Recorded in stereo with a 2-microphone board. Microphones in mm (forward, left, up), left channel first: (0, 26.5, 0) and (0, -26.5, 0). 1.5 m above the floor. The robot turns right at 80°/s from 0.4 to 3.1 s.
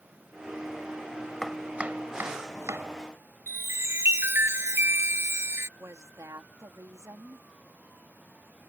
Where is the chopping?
5° left (ahead or behind); by 2.9 s 60° right (ahead or behind).